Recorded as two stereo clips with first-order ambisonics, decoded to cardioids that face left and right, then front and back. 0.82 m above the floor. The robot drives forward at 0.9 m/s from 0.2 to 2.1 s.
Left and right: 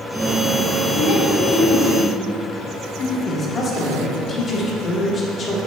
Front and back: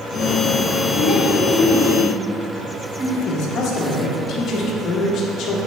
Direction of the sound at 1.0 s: 55° left.